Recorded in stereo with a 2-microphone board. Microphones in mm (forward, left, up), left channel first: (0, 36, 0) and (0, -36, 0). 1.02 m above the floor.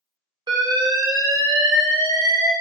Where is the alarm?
75° right (ahead or behind), 0.7 m.